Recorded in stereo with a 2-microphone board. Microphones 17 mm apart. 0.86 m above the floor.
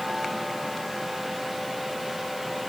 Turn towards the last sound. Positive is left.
No sound to turn to.